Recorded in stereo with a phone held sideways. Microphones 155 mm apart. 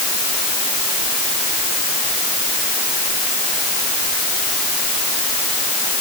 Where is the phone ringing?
I don't hear a phone ringing.